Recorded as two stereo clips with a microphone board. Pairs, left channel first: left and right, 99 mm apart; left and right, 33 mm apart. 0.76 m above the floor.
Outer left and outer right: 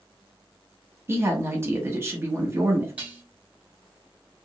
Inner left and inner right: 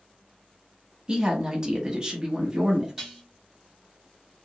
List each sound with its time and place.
1.1 s a woman speaking: 25° right (ahead or behind), 1.0 m
3.0 s dishes clattering: 15° right (ahead or behind), 1.6 m